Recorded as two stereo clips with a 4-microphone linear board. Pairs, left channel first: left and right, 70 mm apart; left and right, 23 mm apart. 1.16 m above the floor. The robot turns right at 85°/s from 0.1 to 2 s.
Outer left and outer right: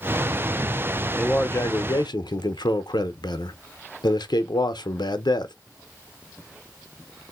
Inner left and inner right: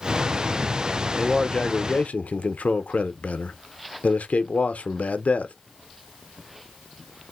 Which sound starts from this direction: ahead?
A man speaking, at 1.2 s.